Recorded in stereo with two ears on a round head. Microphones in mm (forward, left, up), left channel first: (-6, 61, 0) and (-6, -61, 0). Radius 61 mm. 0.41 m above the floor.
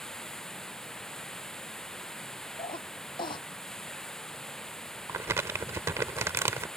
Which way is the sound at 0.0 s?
5° left (ahead or behind).